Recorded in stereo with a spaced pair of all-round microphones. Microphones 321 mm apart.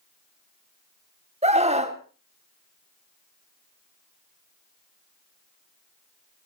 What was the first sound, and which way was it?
A scream, 20° right (ahead or behind).